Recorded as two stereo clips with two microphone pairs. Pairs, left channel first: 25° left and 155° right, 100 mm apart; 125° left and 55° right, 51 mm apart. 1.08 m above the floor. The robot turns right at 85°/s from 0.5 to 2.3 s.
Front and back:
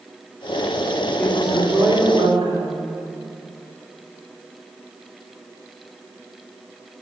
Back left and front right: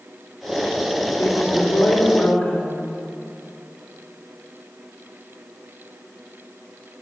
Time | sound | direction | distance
1.2 | a woman speaking | 95° left | 3 m